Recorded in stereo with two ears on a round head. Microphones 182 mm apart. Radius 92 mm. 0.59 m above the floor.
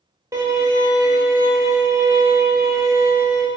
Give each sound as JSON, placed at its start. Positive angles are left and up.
{"t": 0.3, "sound": "a violin", "side_deg": -15, "distance_m": 0.6}